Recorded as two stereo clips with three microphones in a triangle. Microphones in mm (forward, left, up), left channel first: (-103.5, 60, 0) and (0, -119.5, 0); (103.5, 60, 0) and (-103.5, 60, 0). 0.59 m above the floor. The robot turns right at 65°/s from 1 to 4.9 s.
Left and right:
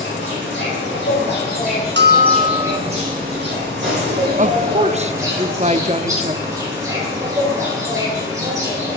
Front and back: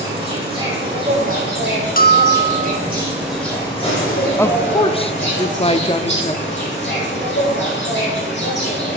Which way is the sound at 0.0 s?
120° left.